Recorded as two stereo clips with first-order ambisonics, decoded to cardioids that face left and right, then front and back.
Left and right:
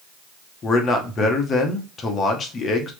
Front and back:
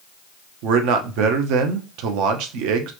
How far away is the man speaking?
About 0.9 m.